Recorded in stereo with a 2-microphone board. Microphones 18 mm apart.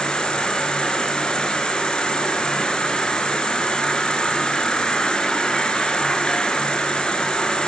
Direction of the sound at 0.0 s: 65° left (ahead or behind).